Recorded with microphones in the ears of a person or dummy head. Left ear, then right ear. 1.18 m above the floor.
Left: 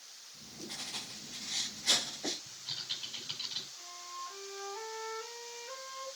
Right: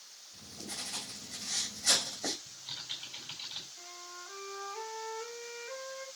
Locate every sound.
0.3 s writing: 65° right (ahead or behind), 4.5 m
2.5 s typing on a keyboard: 15° right (ahead or behind), 4 m
3.8 s a flute: 25° right (ahead or behind), 4.5 m